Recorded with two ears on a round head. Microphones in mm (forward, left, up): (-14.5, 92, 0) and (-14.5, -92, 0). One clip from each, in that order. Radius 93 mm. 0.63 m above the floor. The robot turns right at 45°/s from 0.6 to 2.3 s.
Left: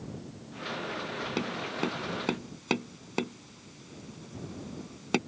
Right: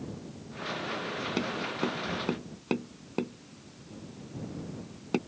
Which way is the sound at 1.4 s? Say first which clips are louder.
Even; centre (ahead or behind).